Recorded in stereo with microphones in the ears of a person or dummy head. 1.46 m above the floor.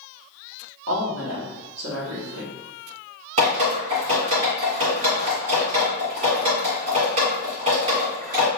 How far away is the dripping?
About 2.0 m.